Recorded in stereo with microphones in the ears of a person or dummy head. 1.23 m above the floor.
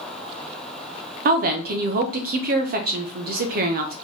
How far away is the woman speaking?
About 0.8 m.